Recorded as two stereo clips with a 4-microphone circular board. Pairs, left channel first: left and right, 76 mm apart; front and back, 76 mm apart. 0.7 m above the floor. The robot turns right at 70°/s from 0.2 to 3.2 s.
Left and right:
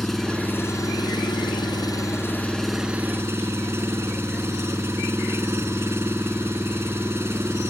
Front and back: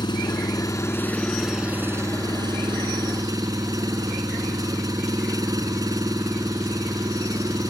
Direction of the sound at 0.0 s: 5° left.